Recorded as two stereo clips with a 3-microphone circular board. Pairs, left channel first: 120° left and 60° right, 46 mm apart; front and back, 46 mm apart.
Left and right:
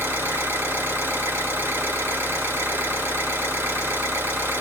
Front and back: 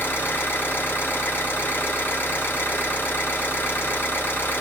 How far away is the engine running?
About 1.5 m.